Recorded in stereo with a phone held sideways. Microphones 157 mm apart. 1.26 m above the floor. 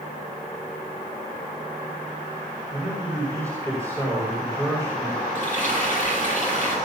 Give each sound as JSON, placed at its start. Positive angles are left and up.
{"t": 2.7, "sound": "a man speaking", "side_deg": 15, "distance_m": 6.0}
{"t": 5.3, "sound": "frying", "side_deg": 55, "distance_m": 7.0}